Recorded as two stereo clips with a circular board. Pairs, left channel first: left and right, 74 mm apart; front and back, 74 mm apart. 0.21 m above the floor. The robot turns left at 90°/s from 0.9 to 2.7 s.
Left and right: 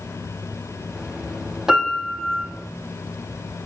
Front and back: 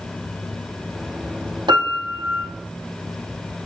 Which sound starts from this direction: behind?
A piano, at 1.7 s.